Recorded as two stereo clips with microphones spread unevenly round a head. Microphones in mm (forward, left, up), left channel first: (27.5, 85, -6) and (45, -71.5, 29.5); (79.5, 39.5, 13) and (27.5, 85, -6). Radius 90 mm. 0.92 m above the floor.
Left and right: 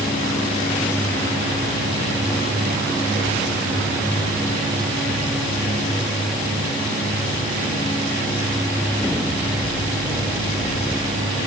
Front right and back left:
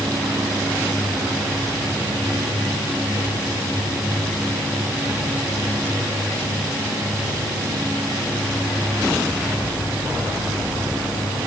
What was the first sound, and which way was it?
Only background noise.